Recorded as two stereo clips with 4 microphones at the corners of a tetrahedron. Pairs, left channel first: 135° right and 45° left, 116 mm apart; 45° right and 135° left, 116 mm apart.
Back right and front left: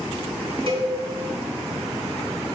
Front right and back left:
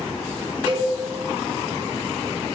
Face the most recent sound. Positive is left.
turn(degrees=85)